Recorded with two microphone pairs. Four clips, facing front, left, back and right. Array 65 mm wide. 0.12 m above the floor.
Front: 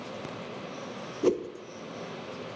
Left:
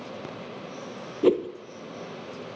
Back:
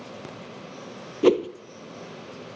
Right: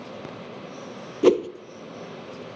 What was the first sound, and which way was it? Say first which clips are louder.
A whoosh: right 3 dB, back 7 dB; 135° right.